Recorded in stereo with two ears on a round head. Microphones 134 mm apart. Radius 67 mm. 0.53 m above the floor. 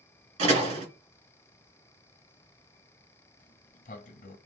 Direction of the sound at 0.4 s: 50° right (ahead or behind).